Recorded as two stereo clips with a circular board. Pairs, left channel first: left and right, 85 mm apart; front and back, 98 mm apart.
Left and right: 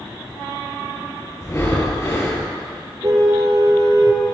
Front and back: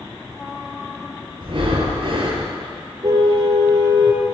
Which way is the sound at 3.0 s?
135° right.